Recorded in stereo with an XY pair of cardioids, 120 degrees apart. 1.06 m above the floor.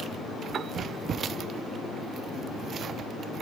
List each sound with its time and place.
0.5 s a piano: 50° right